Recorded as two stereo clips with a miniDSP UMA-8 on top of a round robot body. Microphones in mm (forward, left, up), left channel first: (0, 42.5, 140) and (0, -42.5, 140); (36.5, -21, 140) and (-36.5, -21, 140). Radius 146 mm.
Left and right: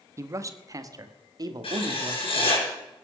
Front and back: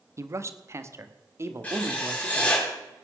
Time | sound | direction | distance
0.2 | a man speaking | 140° right | 1.4 m
1.6 | writing | 75° left | 5.5 m